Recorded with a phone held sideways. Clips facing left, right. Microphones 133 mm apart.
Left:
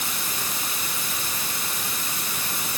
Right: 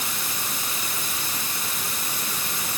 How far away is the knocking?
No knocking in this recording.